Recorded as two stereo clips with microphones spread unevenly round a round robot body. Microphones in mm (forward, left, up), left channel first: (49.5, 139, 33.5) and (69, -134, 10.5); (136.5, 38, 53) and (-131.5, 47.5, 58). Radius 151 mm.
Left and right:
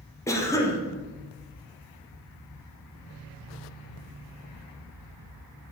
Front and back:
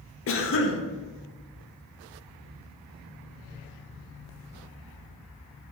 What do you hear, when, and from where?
0.3 s a cough: 15° left, 0.7 m